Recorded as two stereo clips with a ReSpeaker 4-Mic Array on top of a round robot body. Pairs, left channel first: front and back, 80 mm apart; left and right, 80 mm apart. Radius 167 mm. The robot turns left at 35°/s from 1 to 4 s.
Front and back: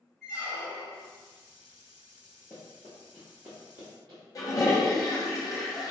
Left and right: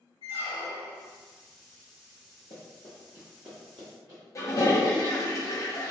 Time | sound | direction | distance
0.2 | a squeak | 90° left | 1.3 m
2.5 | running footsteps | 75° left | 0.9 m
4.3 | a toilet flushing | 40° left | 0.9 m